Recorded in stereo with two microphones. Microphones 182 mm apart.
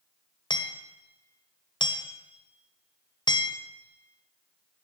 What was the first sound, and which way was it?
Hammering, 25° left (ahead or behind).